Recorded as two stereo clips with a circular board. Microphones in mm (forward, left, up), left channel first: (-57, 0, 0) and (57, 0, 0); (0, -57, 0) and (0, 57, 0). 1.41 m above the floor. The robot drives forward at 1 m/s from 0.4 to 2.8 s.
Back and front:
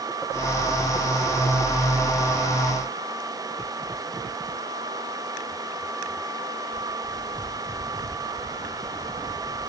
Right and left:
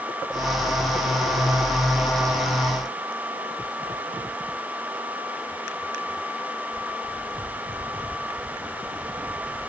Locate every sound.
Only background noise.